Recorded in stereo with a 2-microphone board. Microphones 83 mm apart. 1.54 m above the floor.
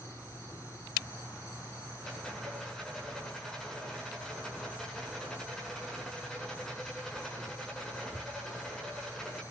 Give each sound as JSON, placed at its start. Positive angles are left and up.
{"t": 2.0, "sound": "a rattle", "side_deg": 5, "distance_m": 9.0}